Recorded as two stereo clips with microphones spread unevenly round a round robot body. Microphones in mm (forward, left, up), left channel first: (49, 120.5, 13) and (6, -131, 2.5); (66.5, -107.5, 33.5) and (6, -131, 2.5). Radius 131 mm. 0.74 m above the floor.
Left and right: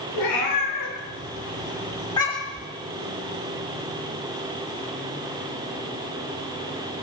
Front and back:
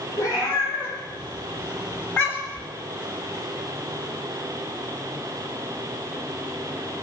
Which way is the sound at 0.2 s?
70° left.